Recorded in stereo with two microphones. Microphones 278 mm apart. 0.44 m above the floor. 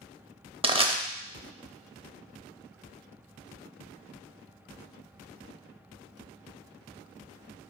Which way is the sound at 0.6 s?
20° right (ahead or behind).